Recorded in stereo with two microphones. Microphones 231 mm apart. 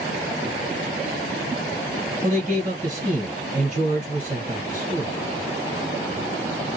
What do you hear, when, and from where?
2.2 s a man speaking: 35° right (ahead or behind), 2.0 m